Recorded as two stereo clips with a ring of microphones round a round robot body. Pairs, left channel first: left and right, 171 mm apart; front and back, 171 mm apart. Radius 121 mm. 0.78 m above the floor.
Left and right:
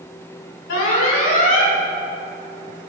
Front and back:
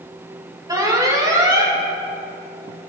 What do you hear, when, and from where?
0.7 s an alarm: 110° left, 3.5 m